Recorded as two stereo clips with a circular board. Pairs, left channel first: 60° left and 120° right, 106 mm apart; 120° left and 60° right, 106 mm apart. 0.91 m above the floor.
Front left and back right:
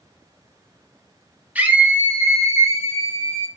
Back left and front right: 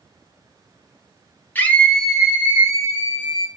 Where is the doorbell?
I don't hear a doorbell.